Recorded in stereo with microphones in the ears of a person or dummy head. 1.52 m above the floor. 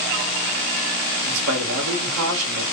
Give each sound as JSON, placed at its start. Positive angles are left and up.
{"t": 1.2, "sound": "a man speaking", "side_deg": -75, "distance_m": 1.8}